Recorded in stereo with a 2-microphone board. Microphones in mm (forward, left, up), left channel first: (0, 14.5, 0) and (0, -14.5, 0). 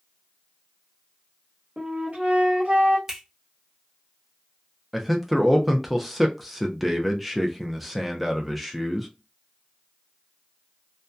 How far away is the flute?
About 1.1 m.